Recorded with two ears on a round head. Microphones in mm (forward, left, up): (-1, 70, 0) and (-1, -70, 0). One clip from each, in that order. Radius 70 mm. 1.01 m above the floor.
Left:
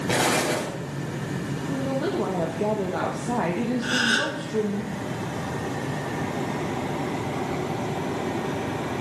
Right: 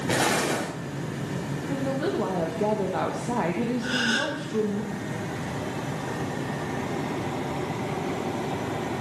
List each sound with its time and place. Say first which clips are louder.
0.1 s an explosion: left 1 dB; centre (ahead or behind), 3 m
1.7 s a woman speaking: left 1 dB; 10° right (ahead or behind), 0.9 m
3.8 s a gasp: left 3 dB; 15° left (ahead or behind), 2 m